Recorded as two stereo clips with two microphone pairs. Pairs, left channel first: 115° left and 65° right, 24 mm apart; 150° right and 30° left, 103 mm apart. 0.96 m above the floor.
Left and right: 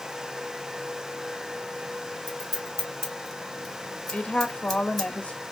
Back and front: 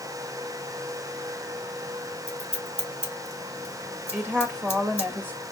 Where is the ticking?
No ticking in this recording.